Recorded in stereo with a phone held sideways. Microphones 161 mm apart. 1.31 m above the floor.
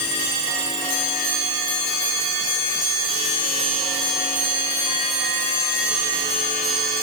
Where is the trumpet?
No trumpet in this recording.